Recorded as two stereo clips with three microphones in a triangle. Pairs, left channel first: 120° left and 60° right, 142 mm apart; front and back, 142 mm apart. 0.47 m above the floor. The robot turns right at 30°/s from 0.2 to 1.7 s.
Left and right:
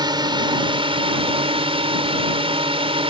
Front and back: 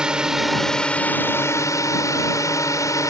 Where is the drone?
100° right; by 3.1 s 55° right.